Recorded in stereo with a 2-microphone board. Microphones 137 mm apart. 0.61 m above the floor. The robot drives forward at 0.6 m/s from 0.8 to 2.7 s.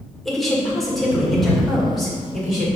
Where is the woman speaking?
Centre (ahead or behind), 1.9 m.